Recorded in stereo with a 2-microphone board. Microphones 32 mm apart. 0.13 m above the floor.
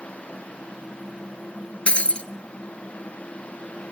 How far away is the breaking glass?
About 0.8 m.